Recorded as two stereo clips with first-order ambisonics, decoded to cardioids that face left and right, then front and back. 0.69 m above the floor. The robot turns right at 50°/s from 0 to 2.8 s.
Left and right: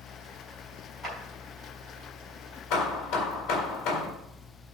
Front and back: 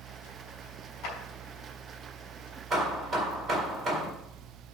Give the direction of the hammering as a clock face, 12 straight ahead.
8 o'clock.